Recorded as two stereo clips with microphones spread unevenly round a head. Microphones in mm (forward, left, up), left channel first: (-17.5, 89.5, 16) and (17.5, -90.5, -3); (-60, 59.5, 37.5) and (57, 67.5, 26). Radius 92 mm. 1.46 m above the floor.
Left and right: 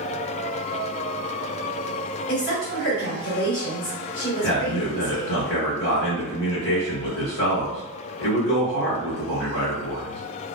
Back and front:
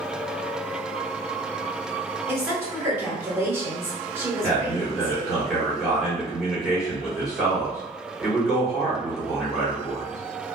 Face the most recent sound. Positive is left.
turn(degrees=90)